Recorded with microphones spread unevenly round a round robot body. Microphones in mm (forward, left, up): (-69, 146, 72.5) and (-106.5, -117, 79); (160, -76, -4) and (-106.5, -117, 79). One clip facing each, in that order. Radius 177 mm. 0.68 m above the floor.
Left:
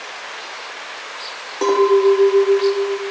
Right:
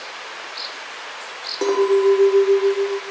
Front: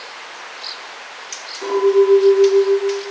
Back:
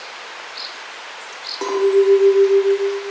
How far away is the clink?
About 1.7 m.